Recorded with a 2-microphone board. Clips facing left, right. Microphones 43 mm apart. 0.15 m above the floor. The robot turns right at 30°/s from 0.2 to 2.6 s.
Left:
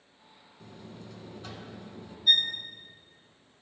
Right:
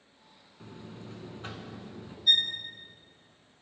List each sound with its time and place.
0.6 s a buzzer: 110° right, 0.8 m; by 2.2 s 65° right, 0.8 m
2.3 s a violin: centre (ahead or behind), 0.9 m; by 2.5 s 10° left (ahead or behind), 0.9 m